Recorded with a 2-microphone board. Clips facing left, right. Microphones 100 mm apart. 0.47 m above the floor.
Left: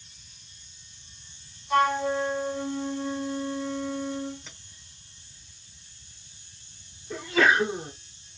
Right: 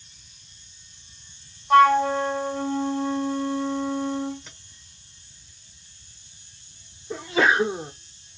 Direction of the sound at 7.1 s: 20° right (ahead or behind).